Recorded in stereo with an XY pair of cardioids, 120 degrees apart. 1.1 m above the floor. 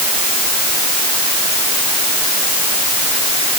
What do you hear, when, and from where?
Only background noise.